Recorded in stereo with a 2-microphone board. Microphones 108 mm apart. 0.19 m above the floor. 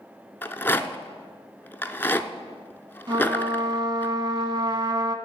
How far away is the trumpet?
About 0.7 m.